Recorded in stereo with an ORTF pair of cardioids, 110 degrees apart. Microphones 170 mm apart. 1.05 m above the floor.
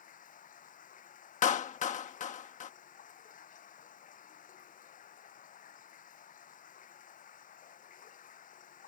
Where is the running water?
50° left.